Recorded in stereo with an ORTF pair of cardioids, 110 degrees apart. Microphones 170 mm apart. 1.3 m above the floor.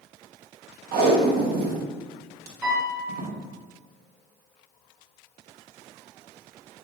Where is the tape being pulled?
65° right, 0.9 m.